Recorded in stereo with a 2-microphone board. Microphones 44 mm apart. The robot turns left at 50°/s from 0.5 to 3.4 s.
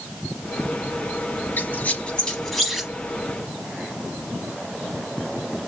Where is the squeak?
55° left (ahead or behind), 0.8 m; by 2.9 s 15° right (ahead or behind), 0.8 m.